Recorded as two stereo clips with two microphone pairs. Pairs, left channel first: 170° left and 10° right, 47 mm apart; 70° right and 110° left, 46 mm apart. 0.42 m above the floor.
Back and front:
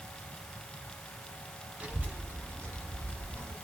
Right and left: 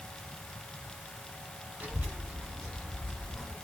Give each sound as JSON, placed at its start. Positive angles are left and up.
{"t": 1.8, "sound": "a child speaking", "azimuth_deg": 55, "distance_m": 1.5}